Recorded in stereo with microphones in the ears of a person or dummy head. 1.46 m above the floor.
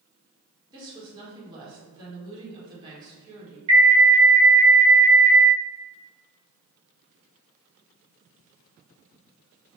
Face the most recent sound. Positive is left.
turn(degrees=-25)  # may be behind; listen again after turning